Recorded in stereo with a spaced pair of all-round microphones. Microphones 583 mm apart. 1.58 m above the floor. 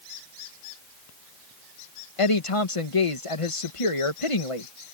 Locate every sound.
2.2 s a woman speaking: 60° left (ahead or behind)